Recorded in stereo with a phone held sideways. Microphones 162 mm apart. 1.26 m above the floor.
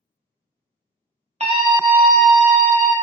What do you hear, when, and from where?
1.4 s a scream: 45° right (ahead or behind), 0.5 m; by 2.9 s 10° left (ahead or behind), 1.6 m